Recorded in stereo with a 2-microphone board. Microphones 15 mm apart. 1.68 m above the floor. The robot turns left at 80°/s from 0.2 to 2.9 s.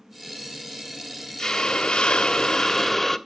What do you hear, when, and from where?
1.4 s a hiss: 135° left, 0.8 m; by 3.2 s 15° left, 0.8 m